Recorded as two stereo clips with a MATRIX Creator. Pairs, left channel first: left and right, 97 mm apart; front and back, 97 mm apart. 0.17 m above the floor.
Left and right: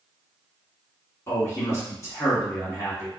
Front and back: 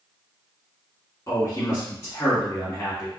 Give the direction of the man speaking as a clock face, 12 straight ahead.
10 o'clock.